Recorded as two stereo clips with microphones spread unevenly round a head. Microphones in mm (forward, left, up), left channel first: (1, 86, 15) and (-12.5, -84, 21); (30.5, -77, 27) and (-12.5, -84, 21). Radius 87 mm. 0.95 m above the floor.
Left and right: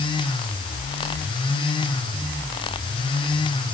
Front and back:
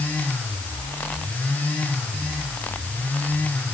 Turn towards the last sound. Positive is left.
No sound to turn to.